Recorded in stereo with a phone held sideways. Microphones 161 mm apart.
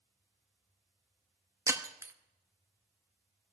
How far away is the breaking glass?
About 0.7 m.